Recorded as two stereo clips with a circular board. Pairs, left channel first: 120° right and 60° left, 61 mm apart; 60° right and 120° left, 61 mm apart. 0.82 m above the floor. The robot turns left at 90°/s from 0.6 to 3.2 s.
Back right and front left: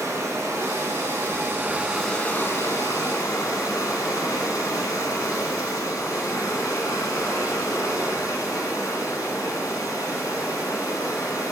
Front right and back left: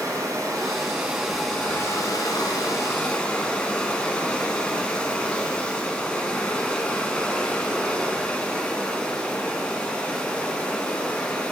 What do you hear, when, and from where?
0.0 s running water: 100° left, 2.5 m; by 11.5 s 135° right, 2.5 m